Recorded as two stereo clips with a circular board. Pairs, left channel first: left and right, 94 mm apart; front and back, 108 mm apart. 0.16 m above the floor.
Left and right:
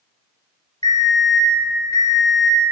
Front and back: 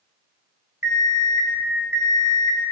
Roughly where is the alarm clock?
Behind left.